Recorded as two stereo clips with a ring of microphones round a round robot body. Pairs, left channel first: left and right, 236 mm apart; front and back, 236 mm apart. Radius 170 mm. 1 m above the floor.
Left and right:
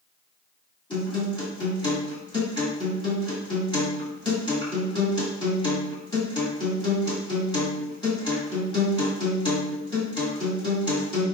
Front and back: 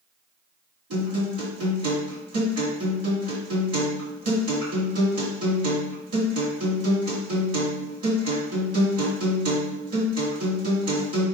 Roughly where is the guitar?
Behind.